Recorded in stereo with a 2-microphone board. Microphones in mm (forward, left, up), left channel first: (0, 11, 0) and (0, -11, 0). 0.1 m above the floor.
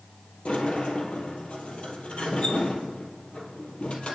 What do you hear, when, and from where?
0.5 s a sliding door: 60° left (ahead or behind), 2 m